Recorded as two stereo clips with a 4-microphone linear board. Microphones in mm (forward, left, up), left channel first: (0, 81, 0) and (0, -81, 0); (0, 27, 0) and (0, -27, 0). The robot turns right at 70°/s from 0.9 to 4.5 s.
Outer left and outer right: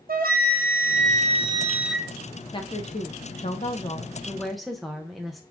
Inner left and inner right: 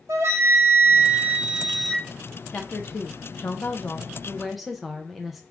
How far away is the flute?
About 0.7 m.